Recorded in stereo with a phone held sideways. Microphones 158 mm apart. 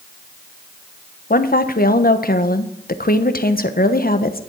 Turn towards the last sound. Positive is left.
turn(degrees=70)  # may be behind; listen again after turning